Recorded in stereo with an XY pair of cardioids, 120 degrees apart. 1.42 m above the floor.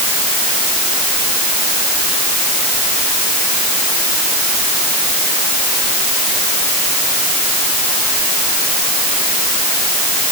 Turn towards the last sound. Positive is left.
No sound to turn to.